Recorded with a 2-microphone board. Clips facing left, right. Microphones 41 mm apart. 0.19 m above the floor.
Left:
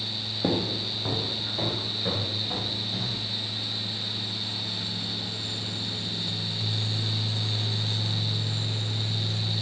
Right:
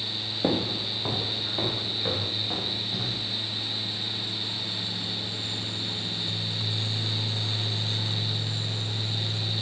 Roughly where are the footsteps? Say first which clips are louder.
Right 1 dB; centre.